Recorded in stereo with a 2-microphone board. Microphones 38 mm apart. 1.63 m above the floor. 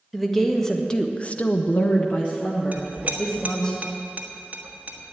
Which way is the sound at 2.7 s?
40° right (ahead or behind).